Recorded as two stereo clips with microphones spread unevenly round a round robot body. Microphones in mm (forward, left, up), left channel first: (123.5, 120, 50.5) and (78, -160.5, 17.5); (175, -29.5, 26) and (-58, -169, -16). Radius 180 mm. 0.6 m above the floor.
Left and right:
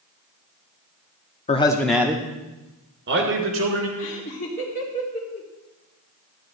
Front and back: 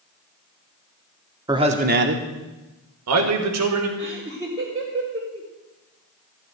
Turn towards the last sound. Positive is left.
turn(degrees=145)